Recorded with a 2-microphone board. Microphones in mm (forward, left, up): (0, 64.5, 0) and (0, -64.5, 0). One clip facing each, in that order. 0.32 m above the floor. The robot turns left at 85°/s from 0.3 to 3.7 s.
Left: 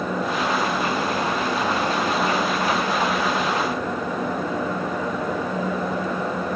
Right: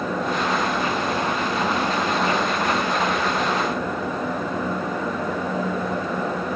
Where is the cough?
I don't hear a cough.